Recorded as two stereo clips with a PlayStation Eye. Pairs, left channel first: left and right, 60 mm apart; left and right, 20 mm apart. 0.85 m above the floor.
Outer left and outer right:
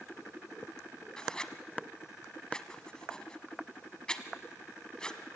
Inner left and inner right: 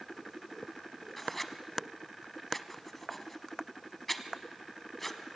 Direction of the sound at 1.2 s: 15° left (ahead or behind).